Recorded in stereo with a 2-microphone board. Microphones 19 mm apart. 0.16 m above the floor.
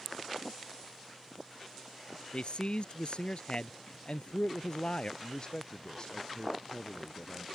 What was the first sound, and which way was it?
A man speaking, 60° left (ahead or behind).